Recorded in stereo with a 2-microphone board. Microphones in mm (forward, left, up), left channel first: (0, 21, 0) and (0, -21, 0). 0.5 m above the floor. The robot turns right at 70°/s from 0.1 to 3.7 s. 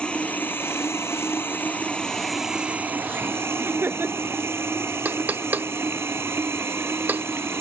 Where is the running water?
25° left; by 7.6 s 85° right.